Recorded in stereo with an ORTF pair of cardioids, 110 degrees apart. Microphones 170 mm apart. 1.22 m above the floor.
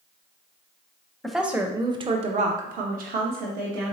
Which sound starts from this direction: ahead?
A woman speaking, at 1.2 s.